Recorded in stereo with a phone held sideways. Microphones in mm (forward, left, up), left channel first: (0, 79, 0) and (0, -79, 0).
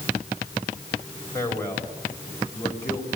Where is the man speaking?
20° left (ahead or behind), 5 m.